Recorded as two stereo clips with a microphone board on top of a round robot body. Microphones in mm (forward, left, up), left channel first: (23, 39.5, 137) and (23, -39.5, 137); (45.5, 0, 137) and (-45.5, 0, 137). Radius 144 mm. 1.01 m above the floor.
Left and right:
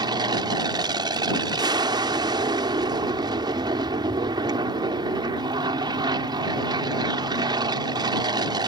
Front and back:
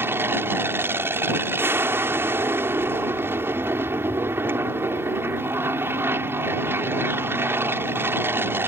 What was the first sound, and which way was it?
An aircraft, 115° right.